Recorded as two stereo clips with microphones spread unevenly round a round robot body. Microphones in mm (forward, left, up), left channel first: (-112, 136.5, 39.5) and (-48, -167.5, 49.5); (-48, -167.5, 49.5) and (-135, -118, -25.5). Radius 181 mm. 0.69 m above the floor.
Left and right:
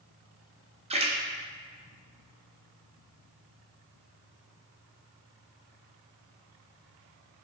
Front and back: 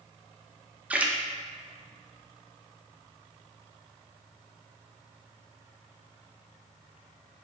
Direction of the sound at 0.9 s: 150° right.